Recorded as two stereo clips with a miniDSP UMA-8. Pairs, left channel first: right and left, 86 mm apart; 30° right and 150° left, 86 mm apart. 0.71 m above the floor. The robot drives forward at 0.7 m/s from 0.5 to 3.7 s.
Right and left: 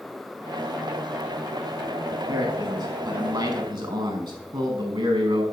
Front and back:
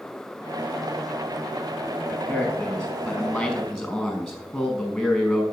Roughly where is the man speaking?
Ahead left.